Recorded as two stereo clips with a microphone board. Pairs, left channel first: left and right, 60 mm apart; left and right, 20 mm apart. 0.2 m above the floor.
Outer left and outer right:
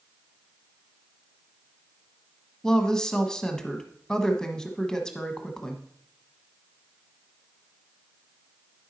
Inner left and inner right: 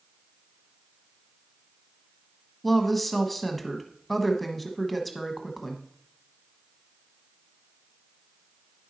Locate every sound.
2.6 s a woman speaking: 10° left (ahead or behind), 1.2 m